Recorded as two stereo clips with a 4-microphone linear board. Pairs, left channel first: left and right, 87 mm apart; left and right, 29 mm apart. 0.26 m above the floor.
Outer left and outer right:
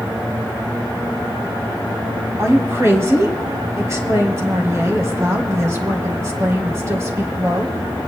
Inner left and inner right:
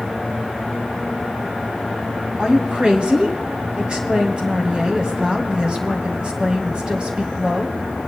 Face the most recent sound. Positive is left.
turn(degrees=-35)  # may be behind; listen again after turning